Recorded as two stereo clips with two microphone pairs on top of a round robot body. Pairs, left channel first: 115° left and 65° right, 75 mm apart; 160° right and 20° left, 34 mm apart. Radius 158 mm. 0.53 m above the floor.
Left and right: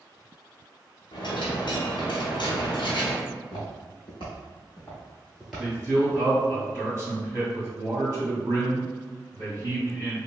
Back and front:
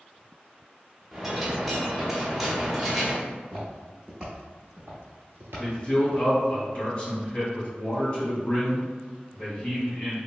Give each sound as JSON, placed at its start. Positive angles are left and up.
{"t": 1.1, "sound": "a dropped coin", "azimuth_deg": 105, "distance_m": 0.9}
{"t": 3.3, "sound": "footsteps", "azimuth_deg": 145, "distance_m": 1.0}
{"t": 5.6, "sound": "a man speaking", "azimuth_deg": -115, "distance_m": 2.0}